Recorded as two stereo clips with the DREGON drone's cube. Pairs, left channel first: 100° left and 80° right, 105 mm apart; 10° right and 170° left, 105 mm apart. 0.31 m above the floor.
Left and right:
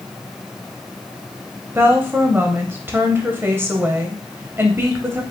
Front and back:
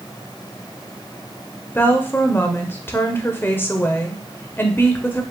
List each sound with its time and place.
1.8 s a woman speaking: 50° right, 0.9 m